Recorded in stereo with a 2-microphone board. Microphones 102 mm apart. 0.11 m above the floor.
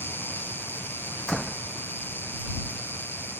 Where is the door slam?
5° left (ahead or behind).